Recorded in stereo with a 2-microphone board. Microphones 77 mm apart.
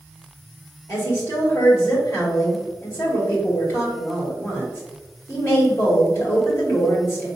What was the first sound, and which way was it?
A woman speaking, 35° left (ahead or behind).